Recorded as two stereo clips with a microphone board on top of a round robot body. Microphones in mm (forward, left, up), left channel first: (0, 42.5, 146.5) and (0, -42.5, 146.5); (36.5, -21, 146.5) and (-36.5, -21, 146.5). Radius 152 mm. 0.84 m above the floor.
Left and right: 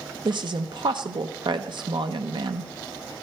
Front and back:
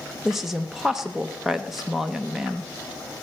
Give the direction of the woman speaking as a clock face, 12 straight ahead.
3 o'clock.